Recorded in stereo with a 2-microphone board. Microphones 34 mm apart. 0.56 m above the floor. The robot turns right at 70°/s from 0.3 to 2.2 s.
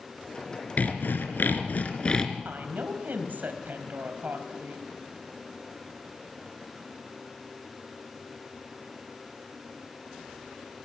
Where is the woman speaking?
65° right (ahead or behind), 4 m.